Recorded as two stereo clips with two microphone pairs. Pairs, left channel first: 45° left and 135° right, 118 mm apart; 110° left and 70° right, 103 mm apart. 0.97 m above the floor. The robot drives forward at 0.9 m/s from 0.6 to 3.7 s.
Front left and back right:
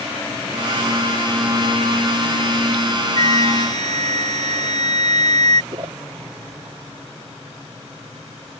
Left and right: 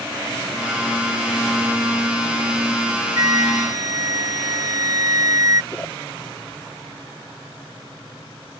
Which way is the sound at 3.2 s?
120° right.